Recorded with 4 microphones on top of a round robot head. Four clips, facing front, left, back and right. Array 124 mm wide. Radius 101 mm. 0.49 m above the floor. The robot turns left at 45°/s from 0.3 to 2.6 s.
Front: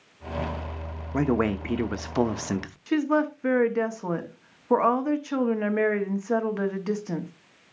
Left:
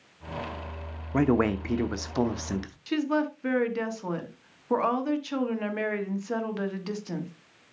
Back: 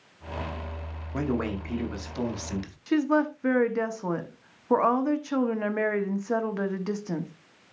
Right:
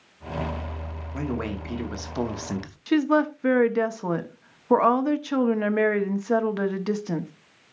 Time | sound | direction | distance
1.1 | a man speaking | 55° left | 1.1 m
2.9 | a woman speaking | 85° right | 1.4 m